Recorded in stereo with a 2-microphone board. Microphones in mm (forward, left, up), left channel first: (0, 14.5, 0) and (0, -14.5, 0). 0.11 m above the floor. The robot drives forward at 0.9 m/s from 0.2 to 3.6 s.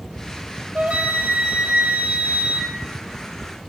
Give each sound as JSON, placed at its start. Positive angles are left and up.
{"t": 0.8, "sound": "a flute", "side_deg": -60, "distance_m": 3.0}